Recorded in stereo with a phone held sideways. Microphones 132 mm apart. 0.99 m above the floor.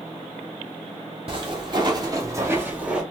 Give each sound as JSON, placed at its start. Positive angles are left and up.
{"t": 1.3, "sound": "footsteps", "side_deg": -45, "distance_m": 1.4}